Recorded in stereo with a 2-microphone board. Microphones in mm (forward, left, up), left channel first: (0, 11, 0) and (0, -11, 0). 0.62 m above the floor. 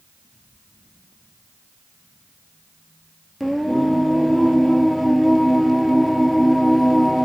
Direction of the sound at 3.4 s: Centre (ahead or behind).